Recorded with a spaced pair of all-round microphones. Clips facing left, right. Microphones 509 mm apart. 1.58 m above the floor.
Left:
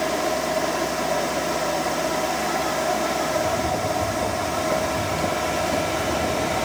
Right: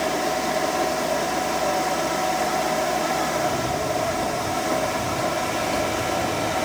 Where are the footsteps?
55° left (ahead or behind), 4.5 m; by 6.7 s 50° left (ahead or behind), 2.5 m.